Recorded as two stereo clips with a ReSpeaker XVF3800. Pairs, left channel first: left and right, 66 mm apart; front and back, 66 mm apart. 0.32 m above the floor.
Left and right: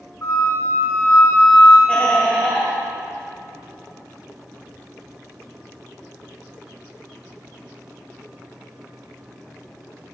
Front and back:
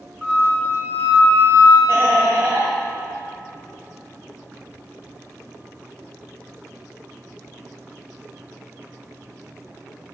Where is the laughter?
145° left, 2 m.